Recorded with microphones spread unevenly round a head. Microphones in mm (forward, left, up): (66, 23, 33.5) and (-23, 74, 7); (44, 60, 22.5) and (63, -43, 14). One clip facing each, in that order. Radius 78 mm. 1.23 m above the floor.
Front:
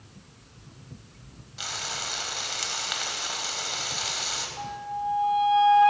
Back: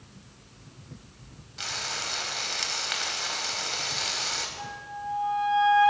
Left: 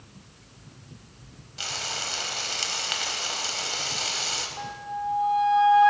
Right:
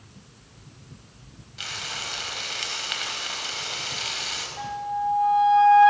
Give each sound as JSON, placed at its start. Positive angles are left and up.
{"t": 1.6, "sound": "frying", "azimuth_deg": 50, "distance_m": 4.0}
{"t": 4.6, "sound": "a flute", "azimuth_deg": 10, "distance_m": 4.5}